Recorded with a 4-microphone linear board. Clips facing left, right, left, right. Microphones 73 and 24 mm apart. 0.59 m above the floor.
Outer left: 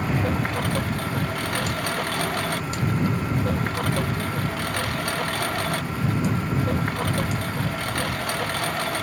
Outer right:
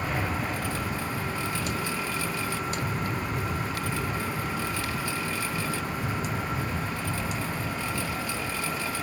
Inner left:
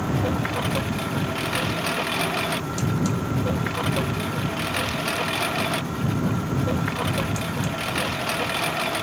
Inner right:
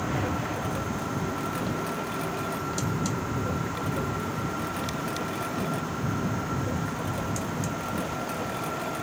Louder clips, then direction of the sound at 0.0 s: Outer left 5 dB, inner left 4 dB; 60° left (ahead or behind).